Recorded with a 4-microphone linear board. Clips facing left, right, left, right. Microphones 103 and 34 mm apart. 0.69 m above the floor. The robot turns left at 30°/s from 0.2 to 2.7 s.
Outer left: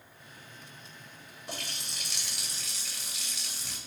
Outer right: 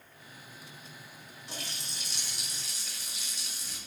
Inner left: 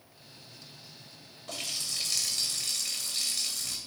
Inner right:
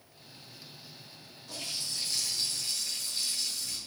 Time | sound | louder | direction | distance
1.5 | a running tap | outer left 2 dB, inner left 2 dB | 120° left | 2.0 m